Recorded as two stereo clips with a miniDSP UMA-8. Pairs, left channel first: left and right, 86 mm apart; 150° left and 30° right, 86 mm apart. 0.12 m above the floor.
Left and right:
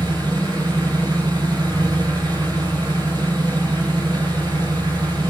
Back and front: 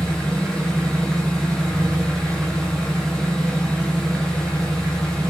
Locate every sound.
0.0 s an engine running: 125° right, 6 m